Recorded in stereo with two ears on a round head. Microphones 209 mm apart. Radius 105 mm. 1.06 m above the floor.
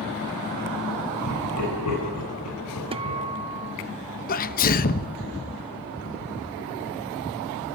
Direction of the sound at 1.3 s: 85° left.